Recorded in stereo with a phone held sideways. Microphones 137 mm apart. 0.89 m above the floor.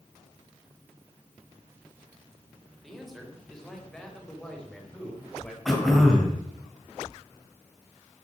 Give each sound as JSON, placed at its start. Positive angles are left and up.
{"t": 2.8, "sound": "a man speaking", "side_deg": 0, "distance_m": 4.0}
{"t": 5.7, "sound": "throat clearing", "side_deg": 0, "distance_m": 3.5}